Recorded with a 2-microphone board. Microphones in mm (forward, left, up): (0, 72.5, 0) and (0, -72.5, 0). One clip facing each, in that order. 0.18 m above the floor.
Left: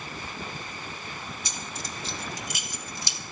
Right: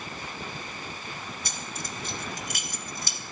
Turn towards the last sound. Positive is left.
turn(degrees=-50)  # may be behind; listen again after turning